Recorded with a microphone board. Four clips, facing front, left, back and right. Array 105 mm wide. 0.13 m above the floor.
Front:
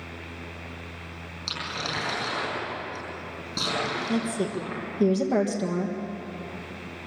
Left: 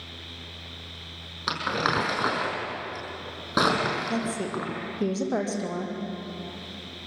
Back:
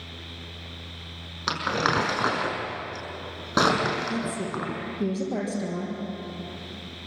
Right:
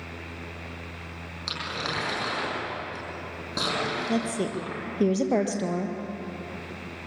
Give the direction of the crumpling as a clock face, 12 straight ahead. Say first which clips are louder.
Left 7 dB, back 9 dB; 7 o'clock.